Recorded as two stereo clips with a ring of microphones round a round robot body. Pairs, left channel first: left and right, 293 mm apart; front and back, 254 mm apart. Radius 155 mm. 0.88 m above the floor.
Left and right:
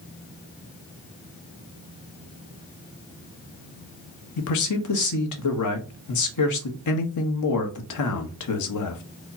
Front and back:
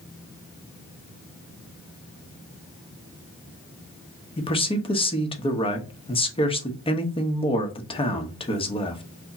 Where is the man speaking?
70° left, 0.9 m.